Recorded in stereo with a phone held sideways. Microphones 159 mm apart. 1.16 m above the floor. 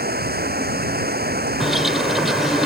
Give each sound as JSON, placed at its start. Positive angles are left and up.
{"t": 0.0, "sound": "running water", "side_deg": -85}
{"t": 1.6, "sound": "a bird", "side_deg": 0}